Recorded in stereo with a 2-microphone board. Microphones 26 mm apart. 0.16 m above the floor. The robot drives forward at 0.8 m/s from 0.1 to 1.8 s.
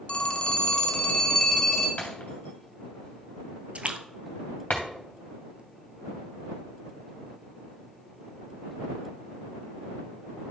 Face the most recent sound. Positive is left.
turn(degrees=-55)  # may be behind; listen again after turning